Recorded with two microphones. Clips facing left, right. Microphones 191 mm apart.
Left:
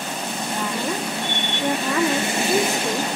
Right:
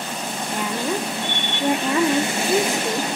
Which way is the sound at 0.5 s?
10° right (ahead or behind).